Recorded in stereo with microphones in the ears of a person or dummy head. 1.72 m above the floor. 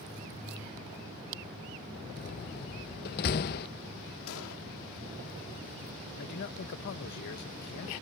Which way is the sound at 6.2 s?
60° left (ahead or behind).